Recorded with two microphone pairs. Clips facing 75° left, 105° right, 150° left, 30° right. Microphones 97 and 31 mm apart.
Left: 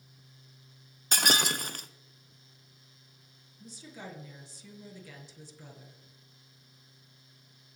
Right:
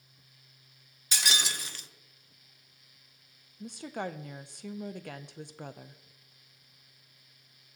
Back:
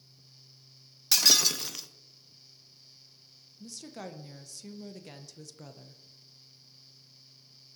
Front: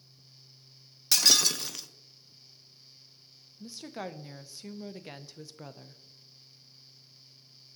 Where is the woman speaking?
95° right, 0.8 m.